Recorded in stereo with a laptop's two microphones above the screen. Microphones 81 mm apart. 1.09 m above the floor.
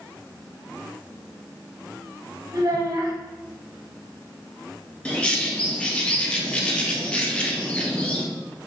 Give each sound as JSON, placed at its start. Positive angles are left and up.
{"t": 2.5, "sound": "a child speaking", "side_deg": -50, "distance_m": 1.2}
{"t": 5.0, "sound": "a bird", "side_deg": 15, "distance_m": 0.6}